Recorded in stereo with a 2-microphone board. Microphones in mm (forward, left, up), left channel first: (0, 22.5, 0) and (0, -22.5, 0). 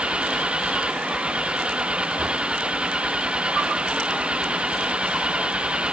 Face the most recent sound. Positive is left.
turn(degrees=-20)  # may be behind; listen again after turning